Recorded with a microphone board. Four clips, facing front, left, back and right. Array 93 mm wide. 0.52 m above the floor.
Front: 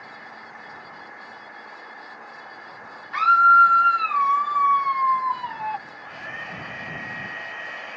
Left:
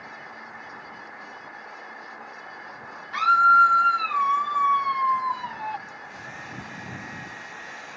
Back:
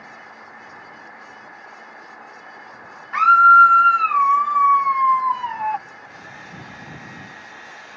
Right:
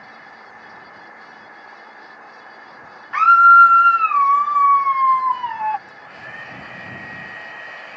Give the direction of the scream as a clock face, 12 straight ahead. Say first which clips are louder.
Right 8 dB, back 4 dB; 4 o'clock.